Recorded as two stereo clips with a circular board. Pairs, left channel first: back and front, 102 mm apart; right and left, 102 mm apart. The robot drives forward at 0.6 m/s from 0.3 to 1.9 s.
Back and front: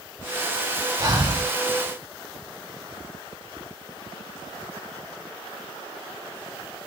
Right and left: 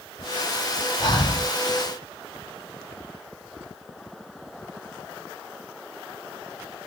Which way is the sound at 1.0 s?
45° right.